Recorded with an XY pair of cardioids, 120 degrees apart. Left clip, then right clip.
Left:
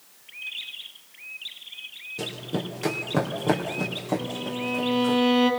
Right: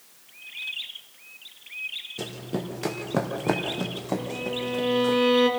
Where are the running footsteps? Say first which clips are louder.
Left 6 dB; 5° right, 3.5 m.